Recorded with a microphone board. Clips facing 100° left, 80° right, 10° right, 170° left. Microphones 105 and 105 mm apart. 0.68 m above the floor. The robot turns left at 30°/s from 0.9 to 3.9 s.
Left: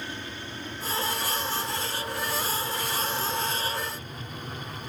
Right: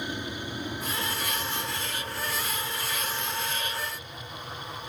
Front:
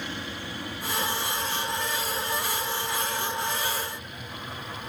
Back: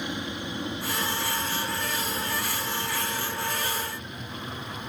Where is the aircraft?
135° right; by 4.9 s 110° left.